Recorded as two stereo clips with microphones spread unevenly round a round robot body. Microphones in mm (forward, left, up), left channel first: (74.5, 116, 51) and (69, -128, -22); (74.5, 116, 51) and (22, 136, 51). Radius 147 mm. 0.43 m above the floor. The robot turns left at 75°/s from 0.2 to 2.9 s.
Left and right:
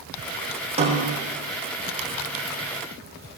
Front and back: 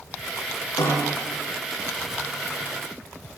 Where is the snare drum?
25° right, 8 m; by 1.3 s 60° right, 8 m.